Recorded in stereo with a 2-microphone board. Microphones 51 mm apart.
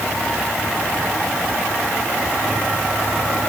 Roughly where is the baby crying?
No baby crying in this recording.